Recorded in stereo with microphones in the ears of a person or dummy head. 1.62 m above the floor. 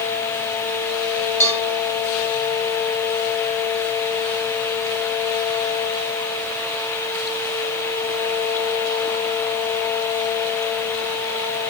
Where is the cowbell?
20° left (ahead or behind), 2 m.